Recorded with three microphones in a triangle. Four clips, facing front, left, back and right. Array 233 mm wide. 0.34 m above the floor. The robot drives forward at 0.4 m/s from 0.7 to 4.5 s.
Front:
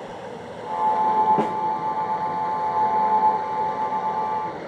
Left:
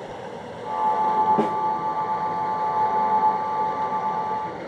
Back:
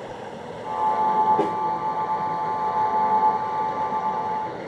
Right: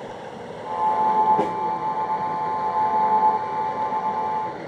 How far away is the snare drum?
About 1.8 m.